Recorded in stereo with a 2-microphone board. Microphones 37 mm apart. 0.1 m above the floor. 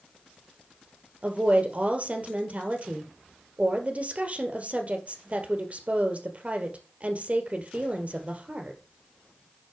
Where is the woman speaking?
40° right (ahead or behind), 2 m.